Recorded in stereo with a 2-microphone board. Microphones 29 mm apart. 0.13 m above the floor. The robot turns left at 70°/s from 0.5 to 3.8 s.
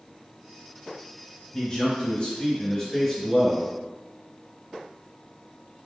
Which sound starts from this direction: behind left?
A man speaking, at 1.5 s.